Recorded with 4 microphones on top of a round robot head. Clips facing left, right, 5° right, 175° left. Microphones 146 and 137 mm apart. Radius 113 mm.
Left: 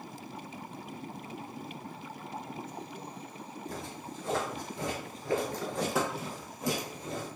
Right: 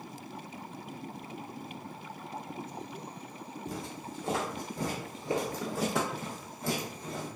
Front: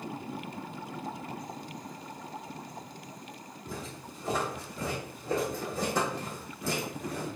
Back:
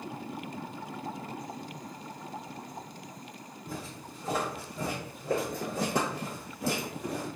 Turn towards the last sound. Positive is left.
turn(degrees=155)